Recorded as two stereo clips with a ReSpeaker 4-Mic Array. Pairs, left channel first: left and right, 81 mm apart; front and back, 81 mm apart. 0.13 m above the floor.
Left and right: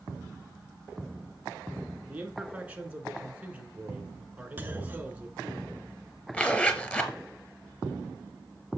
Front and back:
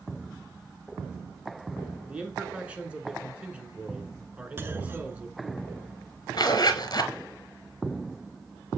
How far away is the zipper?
About 1.0 m.